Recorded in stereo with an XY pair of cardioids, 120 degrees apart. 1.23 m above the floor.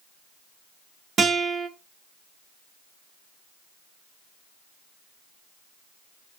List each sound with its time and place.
1.2 s a guitar: 50° right, 1.6 m